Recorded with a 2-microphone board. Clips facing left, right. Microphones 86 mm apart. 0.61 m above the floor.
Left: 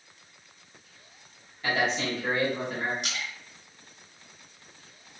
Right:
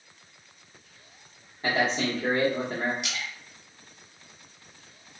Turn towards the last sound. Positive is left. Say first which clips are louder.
# even
turn(degrees=35)  # may be behind; listen again after turning